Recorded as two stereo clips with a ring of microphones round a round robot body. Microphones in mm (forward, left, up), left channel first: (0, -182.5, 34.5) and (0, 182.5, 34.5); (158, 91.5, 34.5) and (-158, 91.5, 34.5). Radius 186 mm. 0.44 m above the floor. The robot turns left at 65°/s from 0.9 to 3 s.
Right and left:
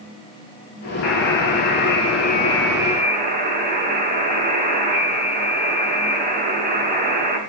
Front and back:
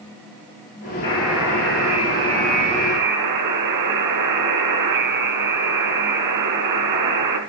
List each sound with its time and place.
1.0 s a buzzer: 75° right, 3.5 m; by 7.4 s 160° left, 3.5 m